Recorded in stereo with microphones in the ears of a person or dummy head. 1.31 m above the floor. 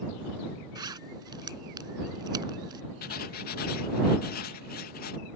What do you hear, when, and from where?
0.8 s a zipper: 25° right (ahead or behind)
3.0 s writing: 55° left (ahead or behind)